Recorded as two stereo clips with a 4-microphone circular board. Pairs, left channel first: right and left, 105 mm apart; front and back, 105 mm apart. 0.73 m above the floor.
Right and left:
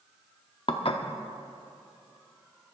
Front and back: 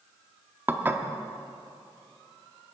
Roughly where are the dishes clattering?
Behind right.